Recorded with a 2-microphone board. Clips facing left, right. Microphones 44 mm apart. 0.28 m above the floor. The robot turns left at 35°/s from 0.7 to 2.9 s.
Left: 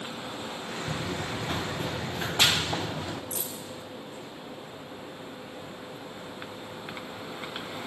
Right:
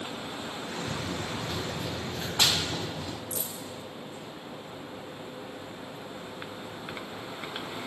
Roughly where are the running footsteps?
Left.